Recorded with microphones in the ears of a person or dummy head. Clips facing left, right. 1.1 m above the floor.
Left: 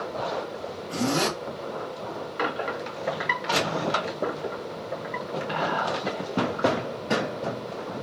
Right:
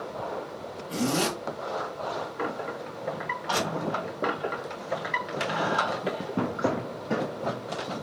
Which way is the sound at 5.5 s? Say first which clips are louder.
Left 1 dB; 40° right (ahead or behind).